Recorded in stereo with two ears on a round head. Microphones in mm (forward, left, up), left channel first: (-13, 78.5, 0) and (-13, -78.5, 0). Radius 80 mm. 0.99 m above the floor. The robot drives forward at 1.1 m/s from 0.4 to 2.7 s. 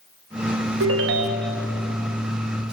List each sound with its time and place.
0.8 s a ringtone: 75° right (ahead or behind), 0.7 m; by 1.6 s 45° right (ahead or behind), 1.0 m